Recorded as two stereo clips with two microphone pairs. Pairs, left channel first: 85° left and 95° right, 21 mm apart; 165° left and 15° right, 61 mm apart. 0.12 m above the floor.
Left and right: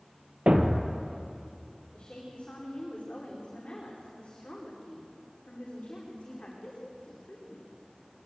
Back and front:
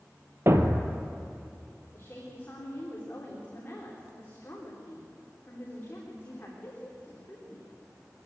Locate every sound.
0.5 s a thud: 60° right, 1.5 m
1.9 s a woman speaking: 110° left, 8.5 m